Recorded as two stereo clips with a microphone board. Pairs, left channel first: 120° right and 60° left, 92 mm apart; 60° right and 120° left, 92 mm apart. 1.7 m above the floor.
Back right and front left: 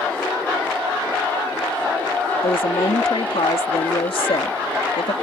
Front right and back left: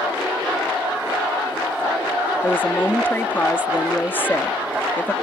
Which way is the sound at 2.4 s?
130° right.